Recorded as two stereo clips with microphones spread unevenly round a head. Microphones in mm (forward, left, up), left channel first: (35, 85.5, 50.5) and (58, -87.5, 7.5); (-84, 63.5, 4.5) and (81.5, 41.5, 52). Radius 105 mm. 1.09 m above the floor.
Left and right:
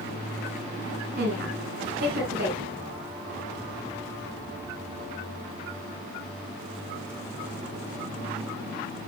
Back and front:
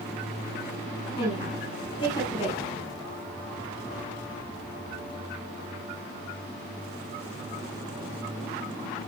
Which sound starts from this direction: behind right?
A woman speaking, at 1.2 s.